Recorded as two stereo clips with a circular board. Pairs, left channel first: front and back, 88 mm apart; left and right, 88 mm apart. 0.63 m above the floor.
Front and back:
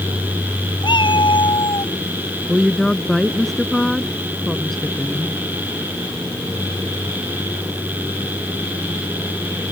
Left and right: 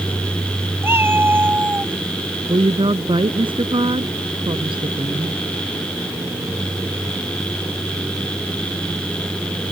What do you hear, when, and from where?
0.8 s a cat meowing: 25° right; by 1.9 s 20° right
2.5 s a woman speaking: 90° right